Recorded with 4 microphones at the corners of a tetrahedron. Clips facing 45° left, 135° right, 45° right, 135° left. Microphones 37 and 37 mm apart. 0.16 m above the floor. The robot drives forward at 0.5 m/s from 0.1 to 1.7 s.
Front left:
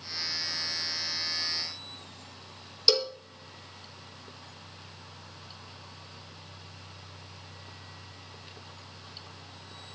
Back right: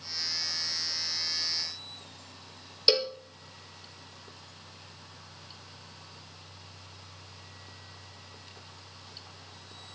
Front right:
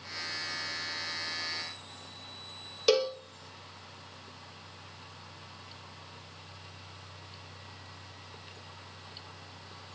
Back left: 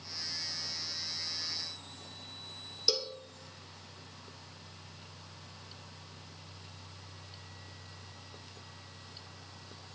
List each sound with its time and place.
2.9 s a cowbell: 75° right, 0.7 m